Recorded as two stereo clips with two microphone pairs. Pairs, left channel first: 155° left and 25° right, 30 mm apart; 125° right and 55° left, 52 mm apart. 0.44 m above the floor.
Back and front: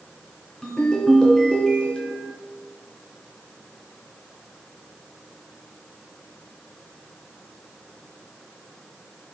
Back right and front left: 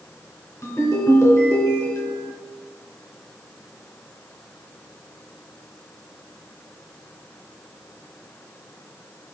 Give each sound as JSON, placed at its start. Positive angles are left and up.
{"t": 0.6, "sound": "a ringtone", "azimuth_deg": -135, "distance_m": 2.5}